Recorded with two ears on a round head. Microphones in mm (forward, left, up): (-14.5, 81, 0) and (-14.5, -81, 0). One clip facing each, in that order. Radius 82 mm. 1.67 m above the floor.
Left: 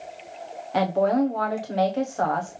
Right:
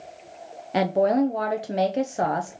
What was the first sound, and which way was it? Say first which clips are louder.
A woman speaking: right 1 dB; 25° right (ahead or behind).